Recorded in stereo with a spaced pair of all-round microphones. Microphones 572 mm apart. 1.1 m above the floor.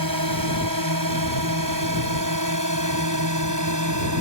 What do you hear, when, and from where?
0.0 s a drone: 35° right (ahead or behind); by 4.2 s 30° right (ahead or behind)